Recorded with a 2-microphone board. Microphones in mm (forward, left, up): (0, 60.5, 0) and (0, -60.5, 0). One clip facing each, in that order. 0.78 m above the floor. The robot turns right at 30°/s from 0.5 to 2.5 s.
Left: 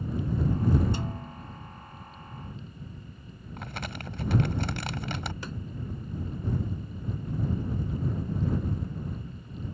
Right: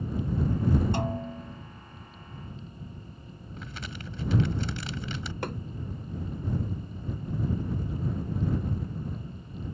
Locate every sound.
0.9 s a snare drum: 65° right (ahead or behind); by 1.6 s 45° right (ahead or behind)
3.6 s crumpling: 65° left (ahead or behind)
5.4 s hammering: 60° right (ahead or behind)